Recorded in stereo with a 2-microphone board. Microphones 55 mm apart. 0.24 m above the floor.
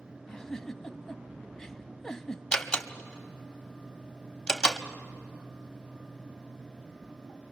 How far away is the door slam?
About 0.9 m.